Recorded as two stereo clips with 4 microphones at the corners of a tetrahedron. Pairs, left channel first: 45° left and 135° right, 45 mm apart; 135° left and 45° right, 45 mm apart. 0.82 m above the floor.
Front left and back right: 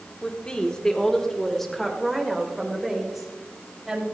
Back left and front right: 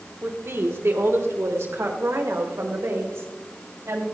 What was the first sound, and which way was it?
A woman speaking, 20° right.